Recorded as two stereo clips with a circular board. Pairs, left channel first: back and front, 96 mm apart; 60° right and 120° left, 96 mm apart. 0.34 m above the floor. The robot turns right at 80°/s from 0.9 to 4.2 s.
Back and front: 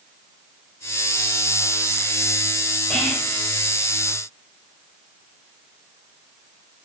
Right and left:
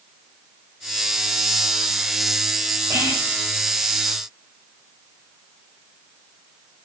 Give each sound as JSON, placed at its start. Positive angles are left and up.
{"t": 2.9, "sound": "whispering", "azimuth_deg": 105, "distance_m": 0.9}